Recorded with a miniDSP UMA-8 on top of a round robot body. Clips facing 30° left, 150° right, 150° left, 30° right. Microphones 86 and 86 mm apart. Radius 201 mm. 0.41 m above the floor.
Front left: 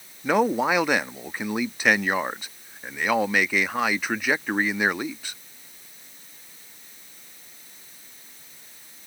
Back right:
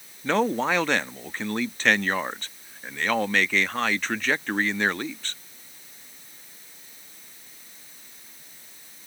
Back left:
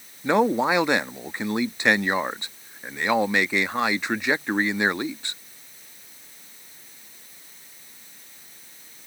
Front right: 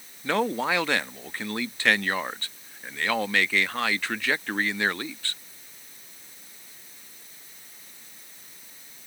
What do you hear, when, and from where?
0.2 s a man speaking: 100° left